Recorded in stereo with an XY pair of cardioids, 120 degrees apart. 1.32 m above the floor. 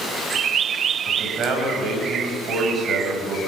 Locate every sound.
1.1 s a man speaking: 55° right, 8 m